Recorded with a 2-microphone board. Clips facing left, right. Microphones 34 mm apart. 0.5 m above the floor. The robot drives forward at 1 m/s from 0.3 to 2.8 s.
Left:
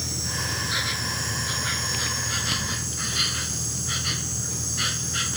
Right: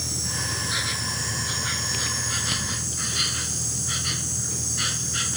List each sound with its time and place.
0.0 s an insect: centre (ahead or behind)